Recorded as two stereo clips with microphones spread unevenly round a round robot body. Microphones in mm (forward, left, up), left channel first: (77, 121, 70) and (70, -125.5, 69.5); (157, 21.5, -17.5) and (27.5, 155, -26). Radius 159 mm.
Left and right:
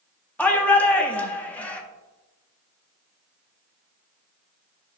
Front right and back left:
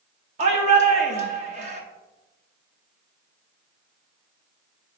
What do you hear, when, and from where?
0.4 s a shout: 170° left, 0.8 m